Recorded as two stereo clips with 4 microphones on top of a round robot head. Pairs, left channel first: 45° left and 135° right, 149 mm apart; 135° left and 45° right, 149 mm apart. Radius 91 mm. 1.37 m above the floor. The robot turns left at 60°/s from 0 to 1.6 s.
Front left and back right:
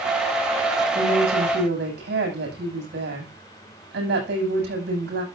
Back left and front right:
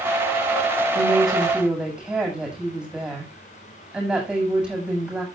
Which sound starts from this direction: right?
A woman speaking, at 0.9 s.